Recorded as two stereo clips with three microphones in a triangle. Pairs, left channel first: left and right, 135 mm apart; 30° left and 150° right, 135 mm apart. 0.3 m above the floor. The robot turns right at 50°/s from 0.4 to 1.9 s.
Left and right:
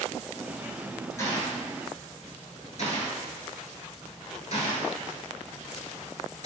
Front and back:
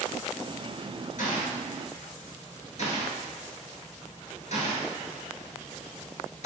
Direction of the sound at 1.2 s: 20° left.